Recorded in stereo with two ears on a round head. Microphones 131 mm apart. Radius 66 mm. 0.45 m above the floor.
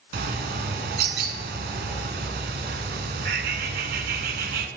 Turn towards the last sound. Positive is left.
turn(degrees=-75)  # may be behind; listen again after turning